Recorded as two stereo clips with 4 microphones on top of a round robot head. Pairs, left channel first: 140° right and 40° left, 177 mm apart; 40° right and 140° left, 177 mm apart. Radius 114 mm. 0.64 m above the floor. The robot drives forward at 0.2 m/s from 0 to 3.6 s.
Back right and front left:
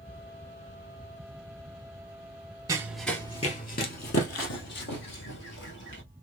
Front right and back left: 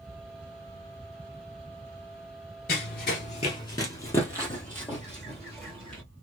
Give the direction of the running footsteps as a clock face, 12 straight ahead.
1 o'clock.